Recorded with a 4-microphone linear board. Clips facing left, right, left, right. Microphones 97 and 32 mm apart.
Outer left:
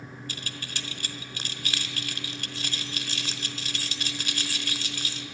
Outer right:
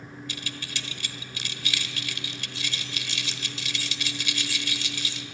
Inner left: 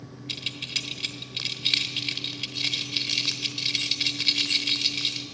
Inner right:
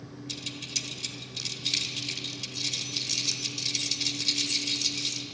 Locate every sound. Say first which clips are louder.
0.3 s keys jangling: outer right 2 dB, inner left 5 dB; 45° left (ahead or behind), 1.2 m